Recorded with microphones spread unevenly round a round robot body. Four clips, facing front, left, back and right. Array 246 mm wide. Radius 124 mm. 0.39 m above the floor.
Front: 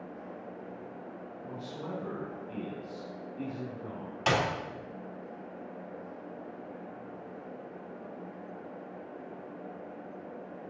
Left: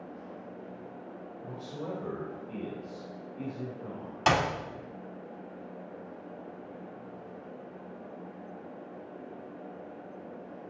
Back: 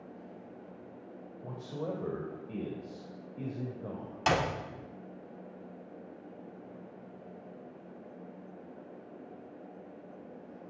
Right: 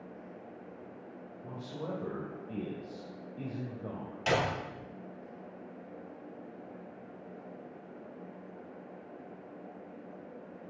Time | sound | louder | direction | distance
1.4 | a man speaking | left 1 dB, back 3 dB | 175° left | 2.5 m
4.3 | a clap | left 4 dB, front 1 dB | 85° left | 3 m